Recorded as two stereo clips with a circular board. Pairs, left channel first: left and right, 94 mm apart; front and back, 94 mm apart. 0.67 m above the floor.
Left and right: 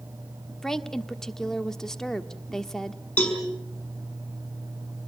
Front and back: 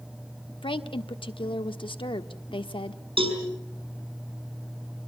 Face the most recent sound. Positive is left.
turn(degrees=165)